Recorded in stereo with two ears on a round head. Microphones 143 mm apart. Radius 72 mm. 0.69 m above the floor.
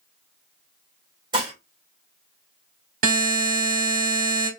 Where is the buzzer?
60° right (ahead or behind), 1.5 m.